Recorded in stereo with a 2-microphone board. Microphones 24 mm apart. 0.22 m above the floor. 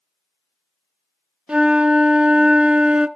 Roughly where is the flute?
Right.